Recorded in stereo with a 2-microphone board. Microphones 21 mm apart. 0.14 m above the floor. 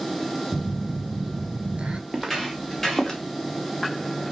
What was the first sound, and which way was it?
A phone buzzing, 65° right (ahead or behind).